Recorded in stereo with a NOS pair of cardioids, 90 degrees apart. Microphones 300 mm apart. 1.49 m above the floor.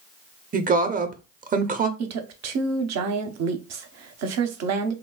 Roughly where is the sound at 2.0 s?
Ahead right.